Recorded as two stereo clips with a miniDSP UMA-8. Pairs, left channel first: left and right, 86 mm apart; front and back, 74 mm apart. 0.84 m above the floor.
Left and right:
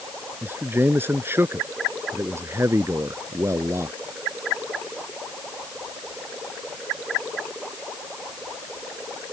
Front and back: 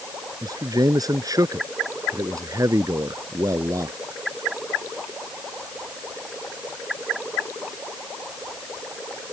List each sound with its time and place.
0.4 s a man speaking: 155° right; by 4.0 s 140° right